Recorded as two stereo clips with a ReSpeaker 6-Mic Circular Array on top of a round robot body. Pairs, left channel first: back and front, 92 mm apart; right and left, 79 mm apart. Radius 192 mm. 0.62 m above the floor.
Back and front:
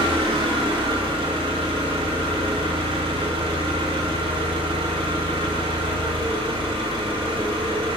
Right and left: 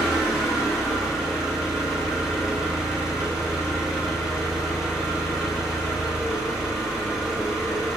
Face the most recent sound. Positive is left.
turn(degrees=5)